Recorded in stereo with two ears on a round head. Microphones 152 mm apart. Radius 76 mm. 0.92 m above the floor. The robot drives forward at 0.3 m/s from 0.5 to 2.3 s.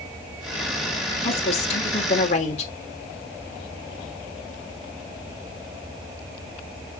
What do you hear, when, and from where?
1.2 s a woman speaking: 35° left (ahead or behind), 3.5 m; by 2.7 s 40° left (ahead or behind), 3.5 m